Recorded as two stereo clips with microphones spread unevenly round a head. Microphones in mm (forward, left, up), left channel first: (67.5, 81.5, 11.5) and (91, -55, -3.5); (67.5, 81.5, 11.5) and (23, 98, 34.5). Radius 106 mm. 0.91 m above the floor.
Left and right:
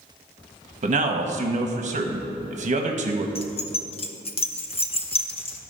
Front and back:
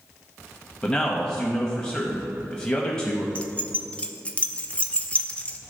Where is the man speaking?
75° right, 0.9 m.